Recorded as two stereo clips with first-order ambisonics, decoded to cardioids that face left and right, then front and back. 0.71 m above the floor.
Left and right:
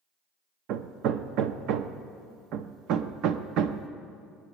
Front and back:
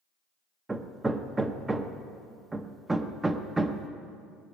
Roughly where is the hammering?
Right.